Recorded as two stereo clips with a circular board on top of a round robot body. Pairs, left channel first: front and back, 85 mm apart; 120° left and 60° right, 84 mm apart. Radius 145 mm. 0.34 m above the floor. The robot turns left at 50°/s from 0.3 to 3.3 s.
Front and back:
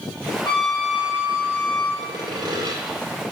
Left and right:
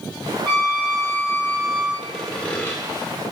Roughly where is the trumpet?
Ahead left.